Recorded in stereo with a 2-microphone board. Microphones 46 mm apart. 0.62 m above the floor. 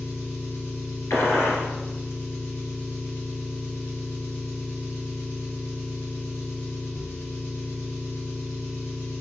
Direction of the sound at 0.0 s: 70° left (ahead or behind).